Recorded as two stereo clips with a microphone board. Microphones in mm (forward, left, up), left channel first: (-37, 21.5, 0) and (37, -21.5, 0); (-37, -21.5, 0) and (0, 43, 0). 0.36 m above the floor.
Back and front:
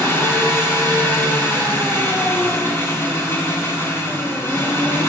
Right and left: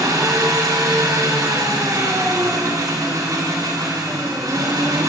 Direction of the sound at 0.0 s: 90° left.